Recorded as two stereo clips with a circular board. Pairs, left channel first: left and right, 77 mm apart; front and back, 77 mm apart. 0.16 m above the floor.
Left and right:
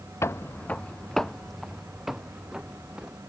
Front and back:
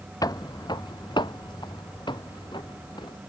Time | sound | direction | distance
0.2 | footsteps | 35° left | ?